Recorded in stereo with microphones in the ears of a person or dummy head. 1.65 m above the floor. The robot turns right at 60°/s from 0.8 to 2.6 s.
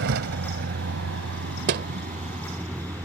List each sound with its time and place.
0.0 s a vehicle: 65° right (ahead or behind); by 3.0 s 20° right (ahead or behind)
1.7 s a thud: 60° right (ahead or behind); by 1.9 s 50° right (ahead or behind)